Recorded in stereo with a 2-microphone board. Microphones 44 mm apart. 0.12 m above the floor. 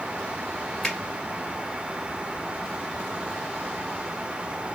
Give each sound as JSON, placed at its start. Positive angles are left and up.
{"t": 0.8, "sound": "a finger snap", "side_deg": 10, "distance_m": 1.7}